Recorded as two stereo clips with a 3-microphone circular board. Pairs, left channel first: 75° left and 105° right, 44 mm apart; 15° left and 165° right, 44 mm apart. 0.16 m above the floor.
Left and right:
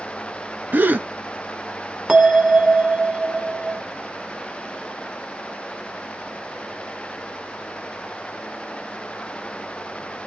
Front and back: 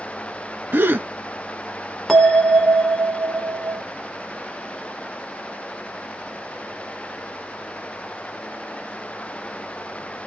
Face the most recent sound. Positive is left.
turn(degrees=-65)